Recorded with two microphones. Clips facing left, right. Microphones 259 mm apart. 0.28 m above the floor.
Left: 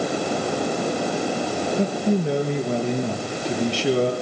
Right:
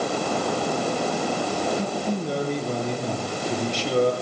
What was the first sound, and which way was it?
A man speaking, 75° left (ahead or behind).